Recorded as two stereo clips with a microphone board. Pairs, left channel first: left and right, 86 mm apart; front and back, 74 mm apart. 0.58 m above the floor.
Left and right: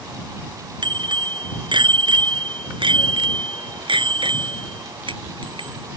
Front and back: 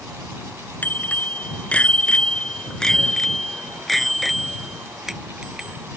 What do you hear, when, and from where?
0.8 s a bicycle bell: 65° right; by 5.9 s 100° right